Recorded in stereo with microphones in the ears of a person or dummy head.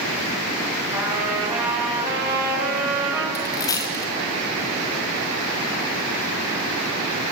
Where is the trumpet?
15° right (ahead or behind), 7.5 m.